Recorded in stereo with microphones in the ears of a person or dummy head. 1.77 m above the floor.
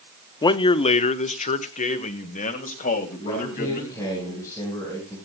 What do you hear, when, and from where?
0.4 s a man speaking: 25° left (ahead or behind), 0.6 m; by 4.0 s 50° left (ahead or behind), 3.5 m
3.2 s a man speaking: 15° left (ahead or behind), 6.5 m